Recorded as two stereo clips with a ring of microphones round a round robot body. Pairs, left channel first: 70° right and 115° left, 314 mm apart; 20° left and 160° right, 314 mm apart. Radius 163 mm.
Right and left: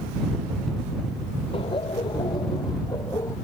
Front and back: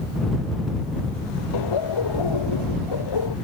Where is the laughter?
5° left; by 3.4 s 15° left.